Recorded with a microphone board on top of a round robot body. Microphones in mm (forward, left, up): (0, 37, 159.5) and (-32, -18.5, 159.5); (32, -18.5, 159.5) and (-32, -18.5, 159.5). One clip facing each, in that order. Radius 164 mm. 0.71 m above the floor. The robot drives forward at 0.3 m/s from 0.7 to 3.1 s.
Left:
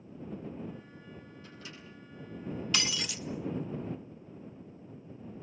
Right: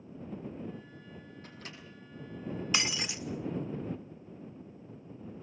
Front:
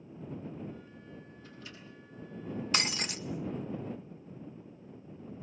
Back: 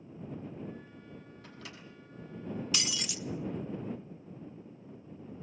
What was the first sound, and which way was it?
A microwave, 160° right.